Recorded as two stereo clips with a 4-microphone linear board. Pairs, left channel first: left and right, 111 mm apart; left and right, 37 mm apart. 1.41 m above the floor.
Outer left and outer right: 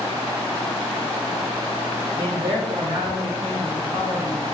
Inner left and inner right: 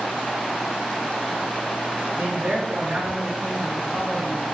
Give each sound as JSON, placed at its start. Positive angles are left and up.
{"t": 2.1, "sound": "a man speaking", "side_deg": -70, "distance_m": 1.6}